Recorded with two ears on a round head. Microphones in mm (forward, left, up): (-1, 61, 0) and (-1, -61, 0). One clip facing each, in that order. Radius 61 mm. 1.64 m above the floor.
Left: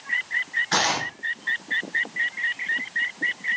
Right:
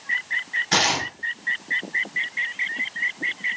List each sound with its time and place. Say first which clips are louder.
0.7 s tearing paper: right 1 dB; 20° right (ahead or behind), 1.5 m